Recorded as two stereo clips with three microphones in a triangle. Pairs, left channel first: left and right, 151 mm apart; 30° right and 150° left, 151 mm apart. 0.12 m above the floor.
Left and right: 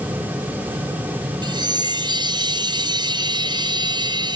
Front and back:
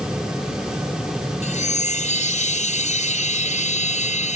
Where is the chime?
40° right.